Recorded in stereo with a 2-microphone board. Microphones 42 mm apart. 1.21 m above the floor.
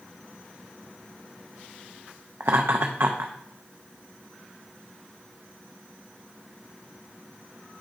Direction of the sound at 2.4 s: 75° right (ahead or behind).